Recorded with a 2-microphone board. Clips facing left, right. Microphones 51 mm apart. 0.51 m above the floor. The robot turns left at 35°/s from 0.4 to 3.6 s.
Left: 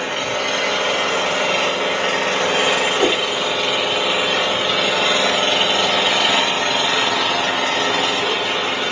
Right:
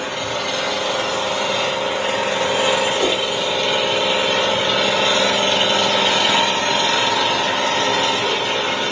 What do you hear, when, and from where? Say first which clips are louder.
0.0 s an engine running: left 2 dB; 125° left, 5 m; by 8.9 s 15° left, 5 m
3.0 s a whoosh: left 2 dB; 30° left (ahead or behind), 1.0 m; by 3.2 s 35° left (ahead or behind), 1.0 m